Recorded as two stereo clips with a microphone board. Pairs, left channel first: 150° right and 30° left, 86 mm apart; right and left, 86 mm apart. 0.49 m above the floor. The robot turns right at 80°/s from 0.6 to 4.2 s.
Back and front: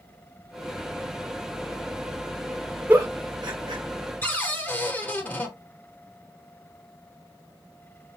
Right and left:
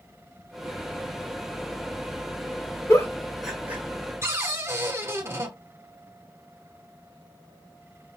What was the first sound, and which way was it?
A giggle, 45° right.